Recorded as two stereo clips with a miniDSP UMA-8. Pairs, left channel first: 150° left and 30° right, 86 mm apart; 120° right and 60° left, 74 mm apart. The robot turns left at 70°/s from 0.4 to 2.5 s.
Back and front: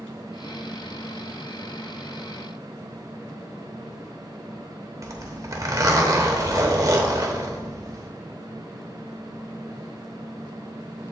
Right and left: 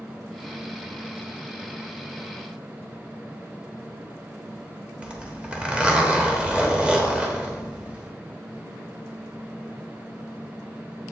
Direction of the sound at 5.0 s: 10° right.